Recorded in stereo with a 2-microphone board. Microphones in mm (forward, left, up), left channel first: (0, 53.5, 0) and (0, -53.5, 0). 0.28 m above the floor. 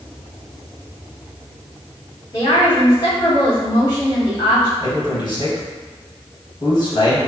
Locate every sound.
2.3 s a woman speaking: 40° left (ahead or behind), 1.9 m
4.8 s a man speaking: 45° left (ahead or behind), 1.5 m